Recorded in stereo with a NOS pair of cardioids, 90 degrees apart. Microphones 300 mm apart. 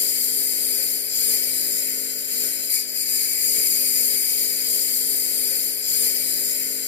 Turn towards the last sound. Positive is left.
turn(degrees=40)